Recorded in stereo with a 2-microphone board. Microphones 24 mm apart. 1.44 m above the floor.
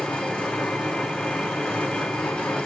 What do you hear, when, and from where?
0.0 s an engine running: 70° left (ahead or behind), 3 m